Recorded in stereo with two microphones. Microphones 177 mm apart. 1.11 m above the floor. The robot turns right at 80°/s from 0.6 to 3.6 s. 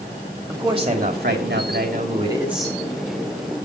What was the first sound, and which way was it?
A man speaking, 160° right.